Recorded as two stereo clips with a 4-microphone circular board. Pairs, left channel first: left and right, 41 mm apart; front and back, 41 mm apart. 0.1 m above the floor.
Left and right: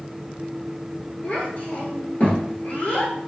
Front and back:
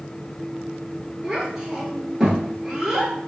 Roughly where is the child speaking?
Left.